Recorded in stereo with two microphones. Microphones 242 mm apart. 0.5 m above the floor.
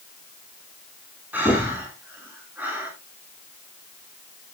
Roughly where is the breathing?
Centre.